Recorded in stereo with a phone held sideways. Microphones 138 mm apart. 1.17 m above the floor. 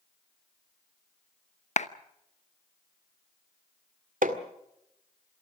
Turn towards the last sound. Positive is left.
turn(degrees=-75)  # may be behind; listen again after turning